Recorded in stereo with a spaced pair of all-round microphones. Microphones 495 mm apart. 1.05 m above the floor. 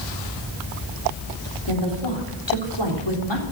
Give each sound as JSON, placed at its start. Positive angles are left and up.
{"t": 1.7, "sound": "a woman speaking", "side_deg": 55, "distance_m": 3.5}